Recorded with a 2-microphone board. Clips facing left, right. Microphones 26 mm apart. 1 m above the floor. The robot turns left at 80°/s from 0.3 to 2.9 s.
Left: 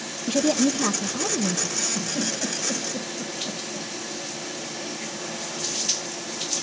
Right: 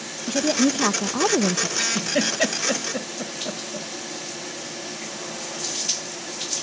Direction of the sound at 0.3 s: 10° left.